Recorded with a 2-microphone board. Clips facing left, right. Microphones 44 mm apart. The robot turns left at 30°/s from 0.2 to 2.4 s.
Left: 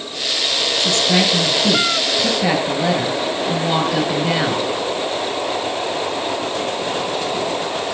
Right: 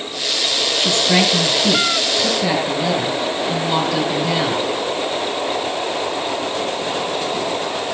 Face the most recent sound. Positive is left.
turn(degrees=160)